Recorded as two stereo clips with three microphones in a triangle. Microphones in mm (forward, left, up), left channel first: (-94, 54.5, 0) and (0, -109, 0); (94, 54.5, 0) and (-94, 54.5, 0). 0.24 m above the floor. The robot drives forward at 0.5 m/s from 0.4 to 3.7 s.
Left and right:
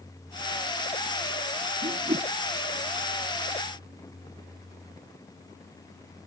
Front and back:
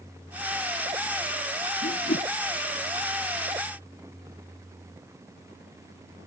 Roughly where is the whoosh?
Ahead.